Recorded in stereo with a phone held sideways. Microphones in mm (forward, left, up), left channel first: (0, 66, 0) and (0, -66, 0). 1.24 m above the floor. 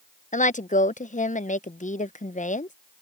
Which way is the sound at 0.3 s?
80° left.